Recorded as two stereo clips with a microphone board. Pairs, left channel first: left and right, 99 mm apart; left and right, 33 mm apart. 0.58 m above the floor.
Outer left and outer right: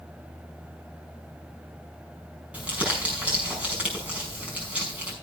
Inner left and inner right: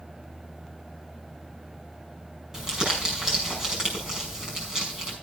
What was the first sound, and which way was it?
Crumpling, 15° right (ahead or behind).